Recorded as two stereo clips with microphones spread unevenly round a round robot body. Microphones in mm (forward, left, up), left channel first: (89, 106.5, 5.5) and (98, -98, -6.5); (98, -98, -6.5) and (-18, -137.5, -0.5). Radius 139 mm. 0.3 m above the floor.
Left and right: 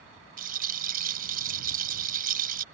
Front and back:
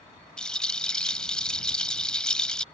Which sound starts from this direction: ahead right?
A rattle, at 0.4 s.